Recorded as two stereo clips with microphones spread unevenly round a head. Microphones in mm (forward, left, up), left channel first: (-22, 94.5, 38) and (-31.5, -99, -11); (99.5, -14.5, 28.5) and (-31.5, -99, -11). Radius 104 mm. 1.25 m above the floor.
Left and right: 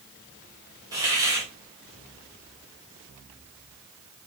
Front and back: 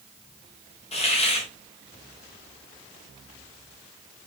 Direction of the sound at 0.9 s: 25° right.